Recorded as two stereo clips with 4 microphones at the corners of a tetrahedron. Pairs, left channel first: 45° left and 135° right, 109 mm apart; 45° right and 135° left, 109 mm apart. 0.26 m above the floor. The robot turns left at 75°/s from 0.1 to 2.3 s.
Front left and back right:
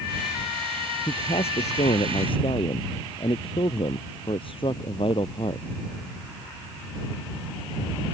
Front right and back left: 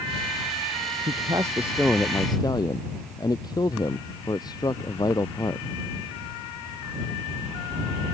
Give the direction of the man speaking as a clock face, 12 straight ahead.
9 o'clock.